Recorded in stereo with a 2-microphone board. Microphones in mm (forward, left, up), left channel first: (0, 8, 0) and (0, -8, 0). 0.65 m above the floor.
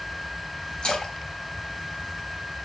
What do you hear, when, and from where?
0.8 s a splash: 60° left (ahead or behind), 3.5 m